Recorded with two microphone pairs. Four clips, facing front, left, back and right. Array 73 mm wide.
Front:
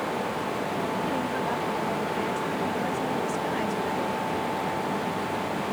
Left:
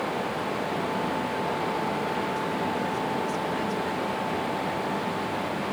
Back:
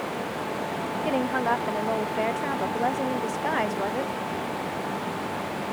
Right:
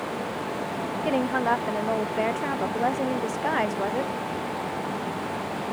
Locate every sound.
1.1 s a woman speaking: 125° right